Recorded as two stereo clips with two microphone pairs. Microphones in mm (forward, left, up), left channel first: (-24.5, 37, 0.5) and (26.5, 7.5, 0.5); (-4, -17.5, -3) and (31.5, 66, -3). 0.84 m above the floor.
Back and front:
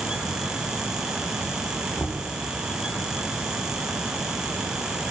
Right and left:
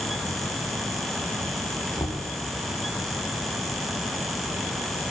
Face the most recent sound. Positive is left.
turn(degrees=-165)